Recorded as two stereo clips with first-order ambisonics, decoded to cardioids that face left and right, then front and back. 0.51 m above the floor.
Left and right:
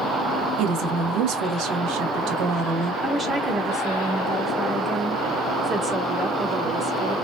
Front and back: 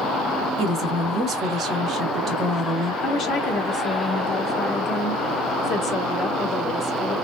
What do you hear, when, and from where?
0.6 s a woman speaking: 115° right, 2.5 m
3.0 s a woman speaking: 30° right, 1.2 m